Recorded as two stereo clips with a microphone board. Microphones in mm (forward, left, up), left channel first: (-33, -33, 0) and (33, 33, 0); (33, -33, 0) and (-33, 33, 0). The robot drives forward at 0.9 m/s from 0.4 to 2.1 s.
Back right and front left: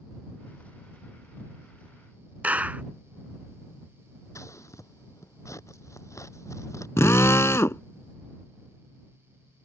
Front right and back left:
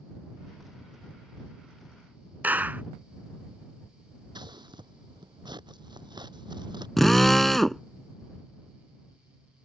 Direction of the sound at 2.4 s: 95° left.